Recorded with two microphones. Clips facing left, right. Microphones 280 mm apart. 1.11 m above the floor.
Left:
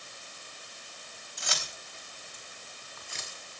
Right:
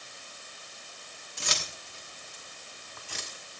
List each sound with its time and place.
1.4 s keys jangling: 85° right, 4 m; by 3.4 s 90° right, 6 m